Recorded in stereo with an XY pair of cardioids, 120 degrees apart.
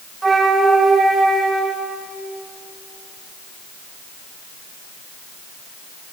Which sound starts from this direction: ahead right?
A flute, at 0.2 s.